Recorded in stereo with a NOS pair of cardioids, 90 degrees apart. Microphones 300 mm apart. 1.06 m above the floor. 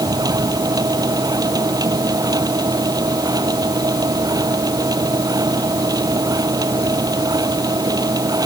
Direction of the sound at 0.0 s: 10° right.